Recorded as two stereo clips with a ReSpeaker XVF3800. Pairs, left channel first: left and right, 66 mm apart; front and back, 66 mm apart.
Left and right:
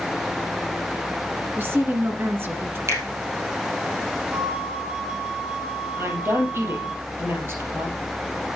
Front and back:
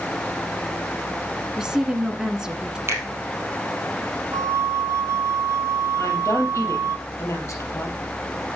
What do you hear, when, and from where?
1.6 s a woman speaking: 105° right, 1.8 m
2.9 s a finger snap: 135° right, 3 m
4.3 s a flute: 160° right, 1.3 m
6.0 s a woman speaking: 40° right, 3.5 m